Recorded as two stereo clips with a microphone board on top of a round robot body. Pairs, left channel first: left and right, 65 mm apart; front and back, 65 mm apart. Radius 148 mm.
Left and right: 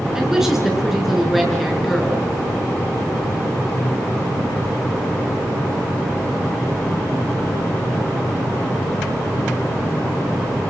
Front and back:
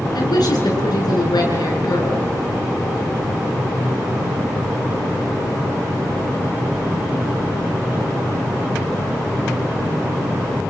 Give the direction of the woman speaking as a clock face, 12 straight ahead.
12 o'clock.